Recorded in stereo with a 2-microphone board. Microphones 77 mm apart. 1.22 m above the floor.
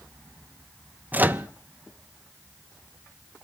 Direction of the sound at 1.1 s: 25° right (ahead or behind).